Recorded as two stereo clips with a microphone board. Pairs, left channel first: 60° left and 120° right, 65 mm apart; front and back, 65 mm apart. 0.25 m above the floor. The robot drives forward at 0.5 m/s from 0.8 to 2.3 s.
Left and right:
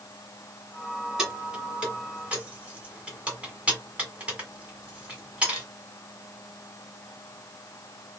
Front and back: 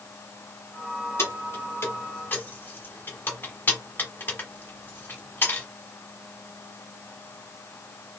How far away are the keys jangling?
About 2 m.